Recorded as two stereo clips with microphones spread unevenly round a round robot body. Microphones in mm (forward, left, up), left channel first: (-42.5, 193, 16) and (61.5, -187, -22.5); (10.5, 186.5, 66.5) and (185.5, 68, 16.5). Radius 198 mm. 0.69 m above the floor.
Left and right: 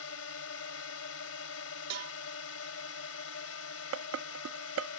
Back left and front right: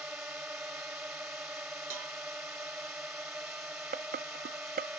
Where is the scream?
I don't hear a scream.